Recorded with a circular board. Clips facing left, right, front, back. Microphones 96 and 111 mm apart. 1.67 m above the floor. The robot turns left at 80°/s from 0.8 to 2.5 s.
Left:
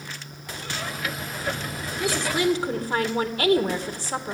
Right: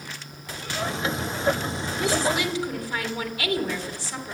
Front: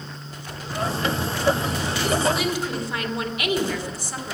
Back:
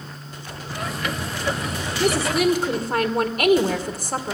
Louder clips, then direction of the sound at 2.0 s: Even, back 3 dB; 175° left.